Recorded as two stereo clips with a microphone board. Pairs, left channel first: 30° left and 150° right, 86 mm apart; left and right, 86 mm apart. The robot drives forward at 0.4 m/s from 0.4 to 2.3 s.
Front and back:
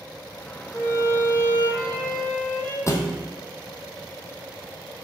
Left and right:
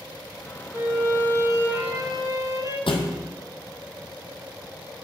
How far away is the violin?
About 3 m.